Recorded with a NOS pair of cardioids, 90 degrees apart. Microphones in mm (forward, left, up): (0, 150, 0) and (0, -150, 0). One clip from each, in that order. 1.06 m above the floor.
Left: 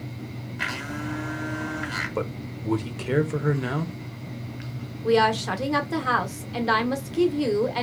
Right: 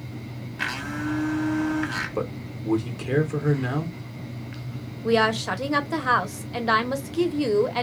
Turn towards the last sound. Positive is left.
turn(degrees=-10)